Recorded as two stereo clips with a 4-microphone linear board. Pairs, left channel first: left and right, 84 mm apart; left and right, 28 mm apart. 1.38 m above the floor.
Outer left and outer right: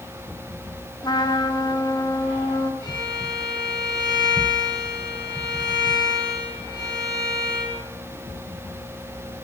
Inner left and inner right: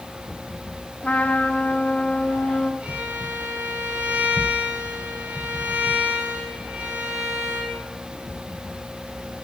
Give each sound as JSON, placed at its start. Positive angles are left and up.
{"t": 1.0, "sound": "a trumpet", "side_deg": 55, "distance_m": 1.6}
{"t": 2.8, "sound": "a violin", "side_deg": -70, "distance_m": 8.5}